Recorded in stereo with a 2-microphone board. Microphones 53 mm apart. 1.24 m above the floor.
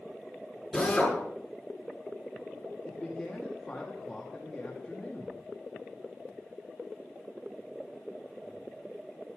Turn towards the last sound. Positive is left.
turn(degrees=15)  # may be behind; listen again after turning